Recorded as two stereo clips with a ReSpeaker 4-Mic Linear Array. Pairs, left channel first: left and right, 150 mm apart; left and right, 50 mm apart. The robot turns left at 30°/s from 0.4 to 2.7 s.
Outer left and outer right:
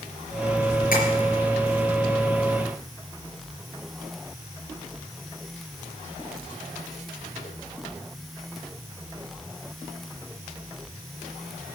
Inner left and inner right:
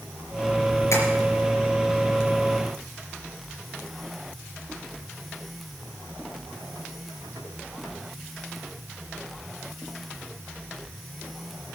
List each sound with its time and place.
0.9 s tapping: 65° left (ahead or behind), 4 m; by 1.0 s 70° left (ahead or behind), 4 m